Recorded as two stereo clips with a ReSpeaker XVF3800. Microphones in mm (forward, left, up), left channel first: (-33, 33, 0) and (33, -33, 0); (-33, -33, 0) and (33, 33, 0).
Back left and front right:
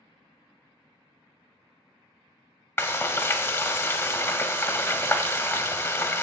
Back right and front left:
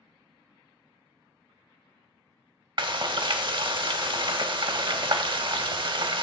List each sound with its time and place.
2.8 s frying: 75° left, 0.6 m